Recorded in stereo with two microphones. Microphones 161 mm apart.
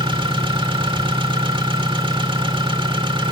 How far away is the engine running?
About 2 m.